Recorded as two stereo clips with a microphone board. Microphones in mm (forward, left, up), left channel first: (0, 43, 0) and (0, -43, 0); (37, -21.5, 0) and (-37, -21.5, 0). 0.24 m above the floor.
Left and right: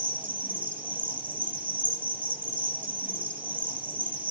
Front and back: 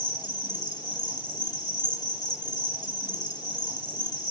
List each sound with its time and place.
0.0 s an insect: 20° right, 6 m